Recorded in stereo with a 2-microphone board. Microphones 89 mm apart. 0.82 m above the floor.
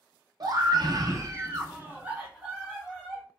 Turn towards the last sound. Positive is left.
turn(degrees=-5)  # may be behind; listen again after turning